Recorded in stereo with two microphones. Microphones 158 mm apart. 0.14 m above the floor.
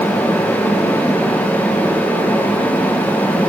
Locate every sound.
Only background noise.